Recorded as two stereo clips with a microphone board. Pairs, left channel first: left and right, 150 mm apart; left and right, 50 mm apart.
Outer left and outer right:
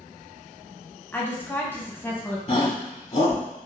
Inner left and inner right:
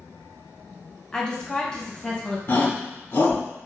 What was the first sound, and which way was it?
A woman speaking, 15° left (ahead or behind).